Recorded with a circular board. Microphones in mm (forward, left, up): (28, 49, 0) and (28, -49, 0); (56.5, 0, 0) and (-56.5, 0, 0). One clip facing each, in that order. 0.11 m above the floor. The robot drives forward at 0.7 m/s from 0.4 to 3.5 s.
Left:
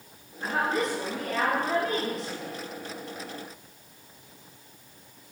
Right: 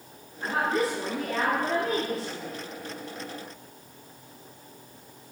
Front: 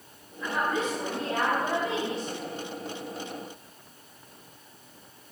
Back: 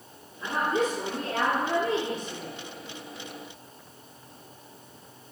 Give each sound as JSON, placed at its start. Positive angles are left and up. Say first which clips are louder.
{"t": 0.4, "sound": "a woman speaking", "louder": "right 1 dB, back 2 dB", "azimuth_deg": -170, "distance_m": 1.6}